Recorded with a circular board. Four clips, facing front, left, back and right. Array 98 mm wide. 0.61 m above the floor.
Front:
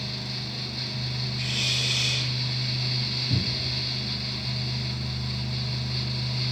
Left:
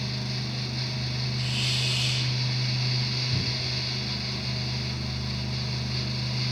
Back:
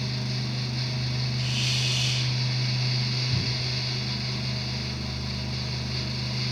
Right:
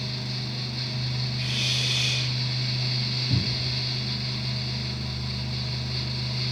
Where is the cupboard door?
55° right, 6 m.